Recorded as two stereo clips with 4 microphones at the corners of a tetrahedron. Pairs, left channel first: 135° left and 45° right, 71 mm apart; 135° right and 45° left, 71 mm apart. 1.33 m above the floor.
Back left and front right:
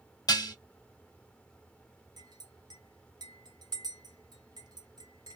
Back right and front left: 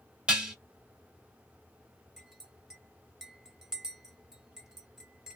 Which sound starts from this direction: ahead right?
A clink, at 2.2 s.